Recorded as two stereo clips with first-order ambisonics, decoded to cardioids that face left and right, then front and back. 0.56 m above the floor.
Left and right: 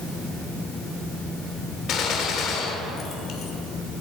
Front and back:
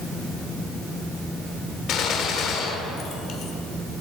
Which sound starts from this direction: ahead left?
A gunshot, at 1.9 s.